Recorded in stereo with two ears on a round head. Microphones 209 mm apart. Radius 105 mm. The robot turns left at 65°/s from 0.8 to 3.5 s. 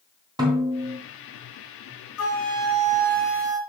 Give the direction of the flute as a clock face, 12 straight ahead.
10 o'clock.